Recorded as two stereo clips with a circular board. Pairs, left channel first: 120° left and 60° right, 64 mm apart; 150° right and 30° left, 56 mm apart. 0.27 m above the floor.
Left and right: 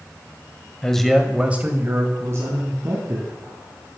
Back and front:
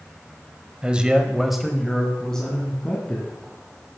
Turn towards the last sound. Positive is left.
turn(degrees=-80)